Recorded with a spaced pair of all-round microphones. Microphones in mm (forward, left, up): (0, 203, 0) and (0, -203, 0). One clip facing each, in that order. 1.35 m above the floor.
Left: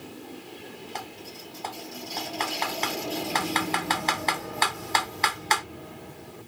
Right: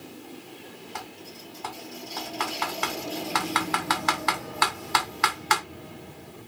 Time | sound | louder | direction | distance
0.9 | typing on a keyboard | left 1 dB | 25° right (ahead or behind) | 0.6 m